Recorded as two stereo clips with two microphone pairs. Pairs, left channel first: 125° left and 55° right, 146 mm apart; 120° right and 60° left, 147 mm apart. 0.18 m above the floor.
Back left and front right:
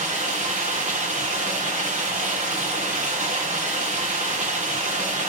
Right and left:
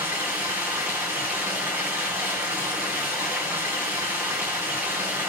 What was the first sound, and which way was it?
Running water, 15° right.